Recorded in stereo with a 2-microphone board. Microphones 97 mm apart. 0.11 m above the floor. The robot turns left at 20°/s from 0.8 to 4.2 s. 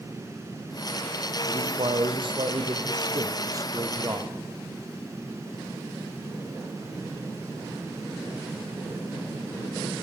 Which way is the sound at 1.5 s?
95° right.